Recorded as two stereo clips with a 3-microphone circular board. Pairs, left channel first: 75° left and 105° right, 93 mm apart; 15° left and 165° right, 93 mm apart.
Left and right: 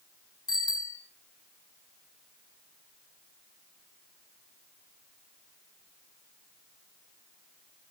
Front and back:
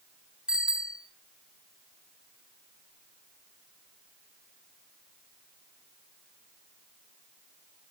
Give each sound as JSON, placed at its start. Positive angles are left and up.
{"t": 0.5, "sound": "a bicycle bell", "azimuth_deg": 115, "distance_m": 4.0}